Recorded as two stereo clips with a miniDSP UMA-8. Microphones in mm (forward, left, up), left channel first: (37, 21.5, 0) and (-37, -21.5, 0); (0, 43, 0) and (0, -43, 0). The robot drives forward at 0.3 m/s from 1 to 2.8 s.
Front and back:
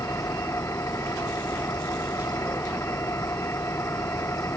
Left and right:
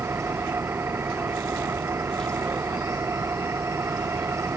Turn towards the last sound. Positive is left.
turn(degrees=-30)